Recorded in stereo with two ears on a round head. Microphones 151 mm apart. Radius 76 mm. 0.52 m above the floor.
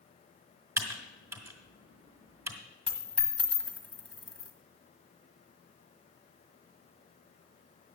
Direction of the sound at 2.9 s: 5° left (ahead or behind).